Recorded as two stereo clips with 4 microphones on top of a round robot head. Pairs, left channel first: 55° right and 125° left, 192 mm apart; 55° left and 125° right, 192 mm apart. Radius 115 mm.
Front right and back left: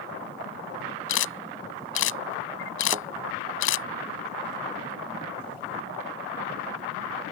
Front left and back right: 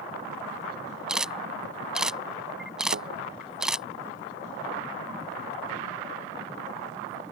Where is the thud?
165° right.